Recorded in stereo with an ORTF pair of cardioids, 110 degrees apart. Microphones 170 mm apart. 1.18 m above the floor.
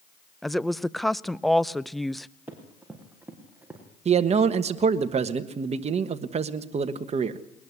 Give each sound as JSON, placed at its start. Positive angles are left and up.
{"t": 0.4, "sound": "a woman speaking", "azimuth_deg": 0, "distance_m": 0.6}
{"t": 2.5, "sound": "running footsteps", "azimuth_deg": -10, "distance_m": 6.0}
{"t": 4.0, "sound": "a man speaking", "azimuth_deg": -40, "distance_m": 1.5}